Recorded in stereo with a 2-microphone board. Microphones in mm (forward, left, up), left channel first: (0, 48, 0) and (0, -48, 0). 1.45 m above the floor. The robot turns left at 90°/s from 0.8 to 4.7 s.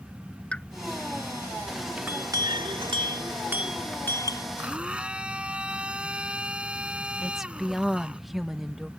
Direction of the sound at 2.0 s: 15° right.